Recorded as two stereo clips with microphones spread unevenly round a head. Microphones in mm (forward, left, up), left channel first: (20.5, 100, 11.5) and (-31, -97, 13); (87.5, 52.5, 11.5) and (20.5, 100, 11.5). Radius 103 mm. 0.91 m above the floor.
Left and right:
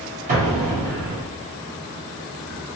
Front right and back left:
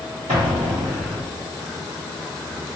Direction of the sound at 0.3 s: 155° right.